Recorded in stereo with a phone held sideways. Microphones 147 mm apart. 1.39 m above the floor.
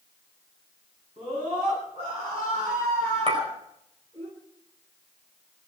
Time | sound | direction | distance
1.2 | a scream | 40° right (ahead or behind) | 10 m
3.3 | a clink | 45° right (ahead or behind) | 4.5 m